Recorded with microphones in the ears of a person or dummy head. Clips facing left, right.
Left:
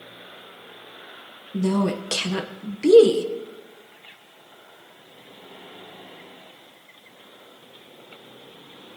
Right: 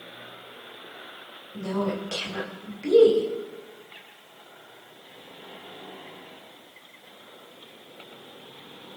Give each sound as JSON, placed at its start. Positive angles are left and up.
{"t": 1.5, "sound": "a woman speaking", "side_deg": 75, "distance_m": 1.3}